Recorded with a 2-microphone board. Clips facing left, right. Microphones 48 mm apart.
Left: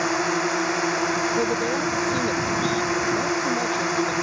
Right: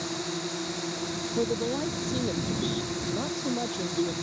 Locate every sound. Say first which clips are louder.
0.0 s a drone: left 11 dB; 60° left (ahead or behind)
1.4 s a man speaking: left 5 dB; 15° left (ahead or behind)